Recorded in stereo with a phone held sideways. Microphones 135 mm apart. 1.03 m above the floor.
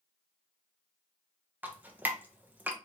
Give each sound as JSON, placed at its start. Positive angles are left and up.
{"t": 1.6, "sound": "dripping", "side_deg": -15, "distance_m": 0.6}